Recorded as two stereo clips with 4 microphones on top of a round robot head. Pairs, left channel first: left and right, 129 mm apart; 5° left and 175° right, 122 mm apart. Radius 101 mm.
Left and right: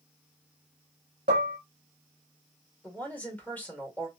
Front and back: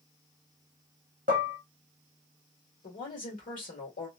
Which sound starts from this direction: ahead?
A woman speaking, at 2.8 s.